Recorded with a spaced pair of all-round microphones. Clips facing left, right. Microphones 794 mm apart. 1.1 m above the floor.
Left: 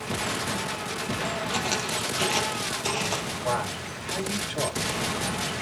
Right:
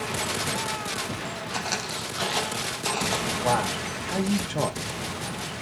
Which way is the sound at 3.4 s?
70° right (ahead or behind).